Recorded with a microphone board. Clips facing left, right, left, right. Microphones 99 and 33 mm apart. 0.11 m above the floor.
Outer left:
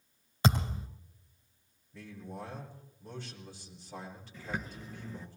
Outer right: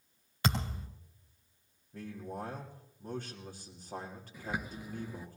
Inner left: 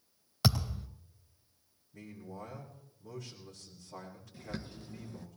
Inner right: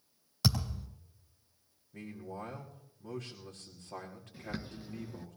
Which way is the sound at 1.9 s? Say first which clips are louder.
Outer right 3 dB, inner right 3 dB; 50° right (ahead or behind).